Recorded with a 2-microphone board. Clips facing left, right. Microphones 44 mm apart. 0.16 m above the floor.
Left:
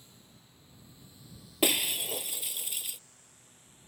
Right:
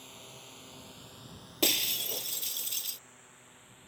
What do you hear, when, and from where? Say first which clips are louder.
0.0 s a drone: right 9 dB; 65° right (ahead or behind); by 3.9 s 25° right (ahead or behind)
1.6 s breaking glass: left 2 dB; 15° left (ahead or behind)